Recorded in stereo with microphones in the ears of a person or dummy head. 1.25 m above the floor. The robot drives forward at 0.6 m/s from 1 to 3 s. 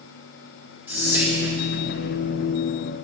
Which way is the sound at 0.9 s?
10° right (ahead or behind).